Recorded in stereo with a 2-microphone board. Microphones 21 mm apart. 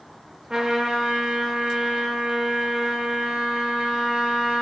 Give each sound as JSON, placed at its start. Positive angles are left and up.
{"t": 0.5, "sound": "a trumpet", "side_deg": -30, "distance_m": 0.6}